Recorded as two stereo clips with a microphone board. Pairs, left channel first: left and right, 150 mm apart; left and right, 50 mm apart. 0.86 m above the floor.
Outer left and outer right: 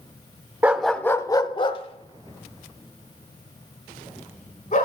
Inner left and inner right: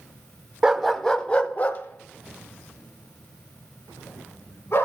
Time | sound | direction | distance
0.6 | a dog barking | 10° right (ahead or behind) | 0.5 m